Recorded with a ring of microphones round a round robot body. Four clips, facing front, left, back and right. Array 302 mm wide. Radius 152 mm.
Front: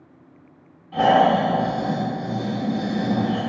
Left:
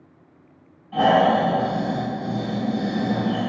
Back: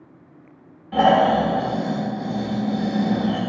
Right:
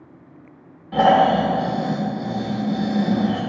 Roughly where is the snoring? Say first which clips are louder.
Right 2 dB, even; behind right.